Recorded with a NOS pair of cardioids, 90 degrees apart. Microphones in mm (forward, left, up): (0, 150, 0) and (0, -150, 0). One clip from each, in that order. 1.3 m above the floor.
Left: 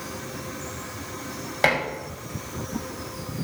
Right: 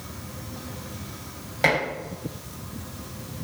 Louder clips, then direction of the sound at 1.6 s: Even; 20° left.